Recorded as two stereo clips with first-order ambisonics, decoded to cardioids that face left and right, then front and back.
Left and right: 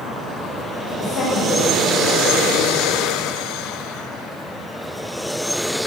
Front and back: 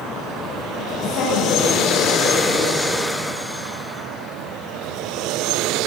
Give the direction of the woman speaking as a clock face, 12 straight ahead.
11 o'clock.